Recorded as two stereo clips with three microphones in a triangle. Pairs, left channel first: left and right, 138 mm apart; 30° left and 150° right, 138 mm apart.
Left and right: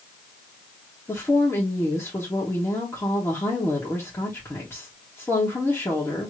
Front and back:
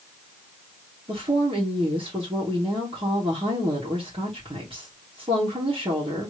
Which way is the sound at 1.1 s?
165° left.